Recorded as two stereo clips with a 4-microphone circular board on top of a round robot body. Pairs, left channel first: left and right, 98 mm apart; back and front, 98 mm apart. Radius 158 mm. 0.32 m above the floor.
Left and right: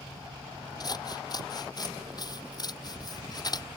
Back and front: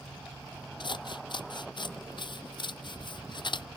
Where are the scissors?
140° left.